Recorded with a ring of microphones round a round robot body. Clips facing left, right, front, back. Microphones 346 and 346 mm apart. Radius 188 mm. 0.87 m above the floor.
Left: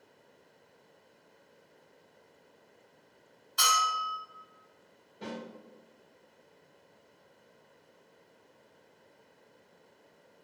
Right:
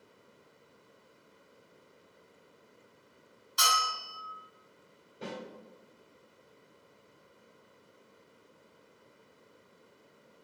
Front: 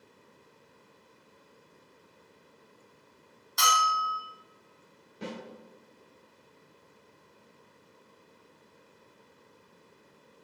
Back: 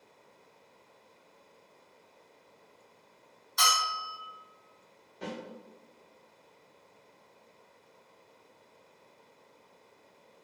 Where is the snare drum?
5° left, 1.4 m.